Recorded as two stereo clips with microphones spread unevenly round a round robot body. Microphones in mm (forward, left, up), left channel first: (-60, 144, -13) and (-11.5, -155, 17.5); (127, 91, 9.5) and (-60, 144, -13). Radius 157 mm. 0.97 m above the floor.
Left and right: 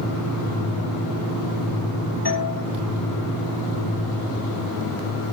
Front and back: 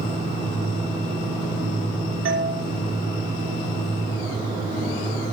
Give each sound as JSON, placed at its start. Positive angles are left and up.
{"t": 2.2, "sound": "a doorbell", "azimuth_deg": 160, "distance_m": 6.5}